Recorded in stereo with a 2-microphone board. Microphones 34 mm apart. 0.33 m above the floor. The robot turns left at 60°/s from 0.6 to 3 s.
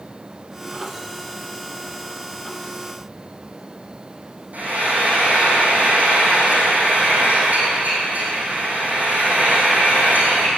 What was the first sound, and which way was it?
Frying, 50° right (ahead or behind).